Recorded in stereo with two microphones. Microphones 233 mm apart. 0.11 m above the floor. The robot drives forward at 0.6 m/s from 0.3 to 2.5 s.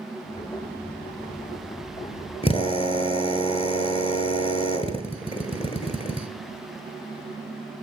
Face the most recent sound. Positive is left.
turn(degrees=25)  # may be behind; listen again after turning